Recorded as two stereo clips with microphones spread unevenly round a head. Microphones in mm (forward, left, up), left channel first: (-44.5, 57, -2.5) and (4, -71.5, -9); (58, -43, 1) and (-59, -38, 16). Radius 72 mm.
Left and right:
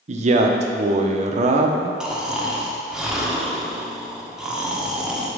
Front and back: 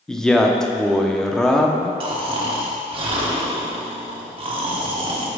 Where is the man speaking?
90° right, 0.6 m.